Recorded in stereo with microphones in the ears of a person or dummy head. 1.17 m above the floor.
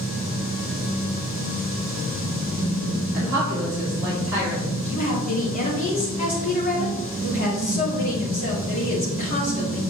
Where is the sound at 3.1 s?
10° right (ahead or behind), 3 m.